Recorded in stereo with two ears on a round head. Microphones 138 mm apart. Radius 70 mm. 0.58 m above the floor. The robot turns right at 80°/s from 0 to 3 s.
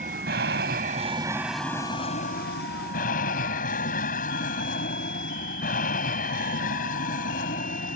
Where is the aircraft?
125° right; by 8.0 s 115° left.